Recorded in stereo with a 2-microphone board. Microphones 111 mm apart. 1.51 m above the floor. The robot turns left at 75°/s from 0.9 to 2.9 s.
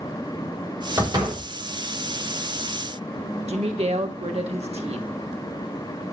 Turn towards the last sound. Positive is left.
turn(degrees=-70)  # may be behind; listen again after turning